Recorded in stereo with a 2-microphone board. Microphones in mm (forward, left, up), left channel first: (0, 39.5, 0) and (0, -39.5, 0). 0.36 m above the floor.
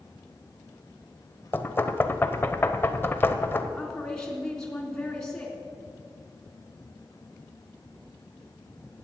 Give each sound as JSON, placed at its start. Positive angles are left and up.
{"t": 1.5, "sound": "knocking", "side_deg": 30, "distance_m": 0.9}
{"t": 3.8, "sound": "a woman speaking", "side_deg": 5, "distance_m": 3.5}